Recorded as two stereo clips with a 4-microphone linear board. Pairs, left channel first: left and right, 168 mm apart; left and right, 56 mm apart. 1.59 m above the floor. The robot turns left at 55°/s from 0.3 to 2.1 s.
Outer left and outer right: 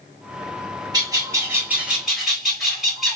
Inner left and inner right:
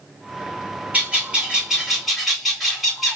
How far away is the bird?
About 1.2 m.